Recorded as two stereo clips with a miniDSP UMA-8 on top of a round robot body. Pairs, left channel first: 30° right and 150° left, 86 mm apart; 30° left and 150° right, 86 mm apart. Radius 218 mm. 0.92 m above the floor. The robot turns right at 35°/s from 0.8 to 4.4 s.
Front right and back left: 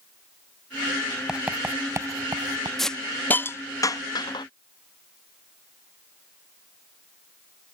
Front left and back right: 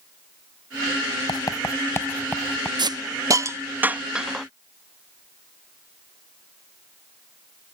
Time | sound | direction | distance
1.3 | writing | 70° left | ?
2.8 | a hiss | 115° right | ?